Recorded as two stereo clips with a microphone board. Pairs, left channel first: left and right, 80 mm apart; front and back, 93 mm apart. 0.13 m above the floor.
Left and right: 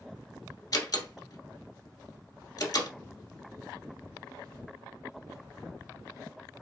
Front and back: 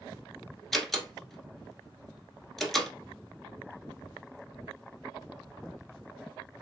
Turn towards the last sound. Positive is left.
turn(degrees=85)